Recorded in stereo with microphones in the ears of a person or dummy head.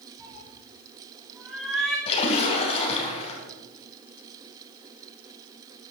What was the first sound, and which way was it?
A cat meowing, 25° right (ahead or behind).